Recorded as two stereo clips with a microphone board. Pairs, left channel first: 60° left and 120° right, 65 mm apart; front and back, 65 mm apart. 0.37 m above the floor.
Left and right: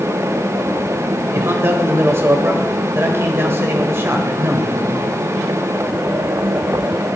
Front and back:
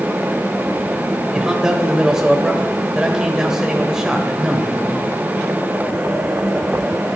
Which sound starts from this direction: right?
A man speaking, at 1.3 s.